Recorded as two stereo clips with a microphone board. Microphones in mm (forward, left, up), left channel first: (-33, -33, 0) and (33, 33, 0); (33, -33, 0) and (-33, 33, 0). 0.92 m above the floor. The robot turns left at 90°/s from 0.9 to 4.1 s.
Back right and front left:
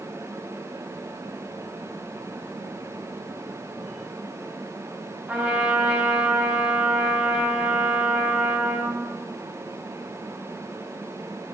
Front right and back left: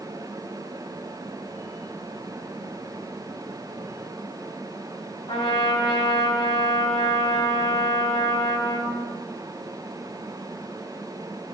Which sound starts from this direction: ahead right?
A trumpet, at 5.3 s.